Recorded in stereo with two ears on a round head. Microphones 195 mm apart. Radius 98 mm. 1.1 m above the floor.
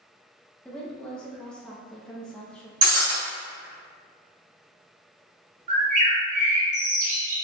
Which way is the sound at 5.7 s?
35° right (ahead or behind).